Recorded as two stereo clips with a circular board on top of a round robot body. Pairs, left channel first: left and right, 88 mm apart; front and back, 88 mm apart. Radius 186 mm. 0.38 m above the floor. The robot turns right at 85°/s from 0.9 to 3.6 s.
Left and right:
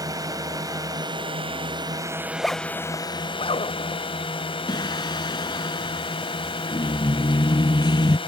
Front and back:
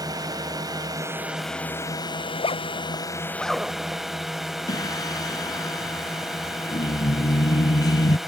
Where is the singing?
50° left.